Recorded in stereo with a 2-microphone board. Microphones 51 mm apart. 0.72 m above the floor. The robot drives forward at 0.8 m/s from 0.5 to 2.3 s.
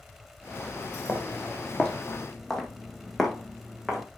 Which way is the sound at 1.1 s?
20° left (ahead or behind).